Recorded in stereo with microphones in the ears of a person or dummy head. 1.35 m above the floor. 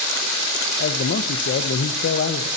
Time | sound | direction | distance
0.8 | a man speaking | 50° left (ahead or behind) | 1.0 m